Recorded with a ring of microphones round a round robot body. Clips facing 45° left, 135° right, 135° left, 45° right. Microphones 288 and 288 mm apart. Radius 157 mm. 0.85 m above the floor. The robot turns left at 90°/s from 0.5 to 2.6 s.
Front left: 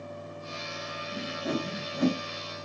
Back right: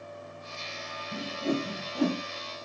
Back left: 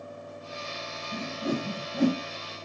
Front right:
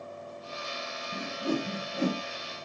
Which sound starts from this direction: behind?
A whoosh, at 1.1 s.